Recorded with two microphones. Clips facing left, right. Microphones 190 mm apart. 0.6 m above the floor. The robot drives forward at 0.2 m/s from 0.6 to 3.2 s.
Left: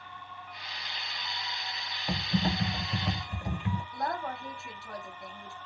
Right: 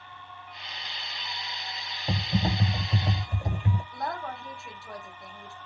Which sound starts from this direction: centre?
A woman speaking, at 3.9 s.